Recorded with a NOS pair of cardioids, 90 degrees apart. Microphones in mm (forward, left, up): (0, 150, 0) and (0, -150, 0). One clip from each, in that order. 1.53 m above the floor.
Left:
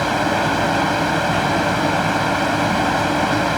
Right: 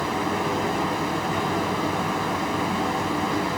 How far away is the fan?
About 1.0 m.